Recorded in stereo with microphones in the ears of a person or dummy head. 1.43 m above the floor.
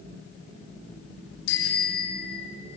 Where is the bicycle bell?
65° left (ahead or behind), 7 m; by 2.6 s 60° left (ahead or behind), 6.5 m.